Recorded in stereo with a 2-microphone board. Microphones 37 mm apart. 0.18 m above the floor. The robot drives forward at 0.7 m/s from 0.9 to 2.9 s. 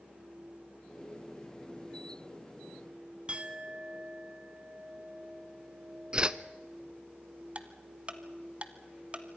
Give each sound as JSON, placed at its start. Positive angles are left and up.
{"t": 3.3, "sound": "a clink", "side_deg": -30, "distance_m": 1.1}
{"t": 6.1, "sound": "a whoosh", "side_deg": -25, "distance_m": 0.6}
{"t": 7.5, "sound": "ticking", "side_deg": -35, "distance_m": 1.3}